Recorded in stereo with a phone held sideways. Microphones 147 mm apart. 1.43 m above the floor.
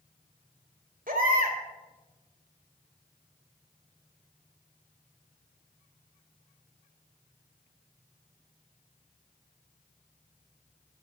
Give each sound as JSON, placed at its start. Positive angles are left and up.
{"t": 1.1, "sound": "a baby crying", "side_deg": -70, "distance_m": 3.0}